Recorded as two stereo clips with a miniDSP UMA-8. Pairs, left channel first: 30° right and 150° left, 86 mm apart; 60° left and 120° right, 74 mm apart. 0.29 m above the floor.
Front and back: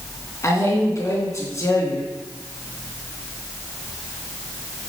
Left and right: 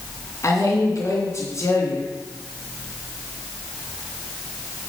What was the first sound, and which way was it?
A man speaking, 20° left.